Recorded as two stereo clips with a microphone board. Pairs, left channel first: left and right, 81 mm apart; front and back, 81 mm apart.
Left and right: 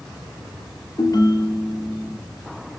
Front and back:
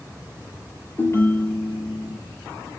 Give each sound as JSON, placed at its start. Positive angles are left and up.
{"t": 1.0, "sound": "a ringtone", "azimuth_deg": 55, "distance_m": 1.5}